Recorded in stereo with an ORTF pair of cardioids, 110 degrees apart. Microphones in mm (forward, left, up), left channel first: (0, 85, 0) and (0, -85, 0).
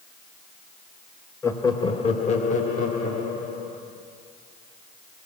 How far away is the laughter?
About 0.9 m.